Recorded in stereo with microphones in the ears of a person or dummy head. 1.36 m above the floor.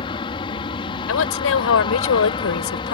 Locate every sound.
0.0 s an aircraft: 30° left (ahead or behind)
1.1 s a woman speaking: 80° left